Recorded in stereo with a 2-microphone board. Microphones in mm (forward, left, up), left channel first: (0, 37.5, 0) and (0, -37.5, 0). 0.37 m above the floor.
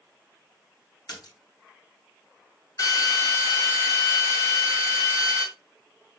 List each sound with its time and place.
1.1 s a splash: 60° left (ahead or behind), 3 m
2.8 s a drill: 55° left (ahead or behind), 2.0 m